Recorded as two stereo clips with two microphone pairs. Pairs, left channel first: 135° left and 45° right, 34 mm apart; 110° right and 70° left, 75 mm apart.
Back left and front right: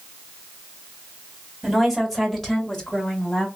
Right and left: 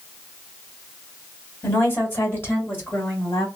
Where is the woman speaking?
125° right, 1.4 m; by 3.5 s 165° right, 2.5 m.